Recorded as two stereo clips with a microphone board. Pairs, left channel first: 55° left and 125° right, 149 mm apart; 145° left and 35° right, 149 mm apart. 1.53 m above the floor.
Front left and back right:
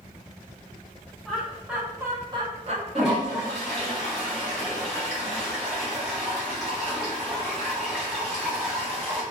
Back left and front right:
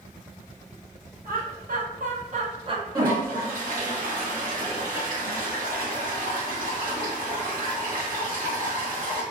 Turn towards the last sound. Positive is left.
turn(degrees=-40)